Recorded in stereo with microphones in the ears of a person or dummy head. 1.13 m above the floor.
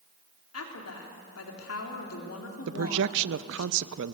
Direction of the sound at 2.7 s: 60° right (ahead or behind).